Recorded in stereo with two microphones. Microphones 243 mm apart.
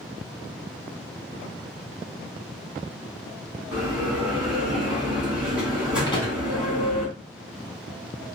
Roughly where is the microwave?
Centre.